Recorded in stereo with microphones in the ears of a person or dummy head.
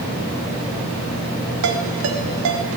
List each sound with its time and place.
1.6 s a ringtone: 75° right (ahead or behind), 4 m